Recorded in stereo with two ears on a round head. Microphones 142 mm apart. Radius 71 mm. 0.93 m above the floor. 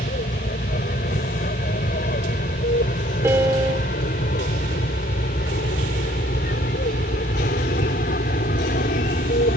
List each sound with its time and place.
0.0 s an aircraft: 55° left (ahead or behind)
3.2 s a piano: 15° right (ahead or behind)